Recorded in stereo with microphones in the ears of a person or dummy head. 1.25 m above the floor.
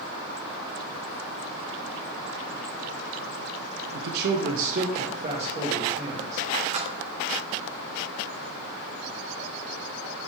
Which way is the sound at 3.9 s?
65° right (ahead or behind).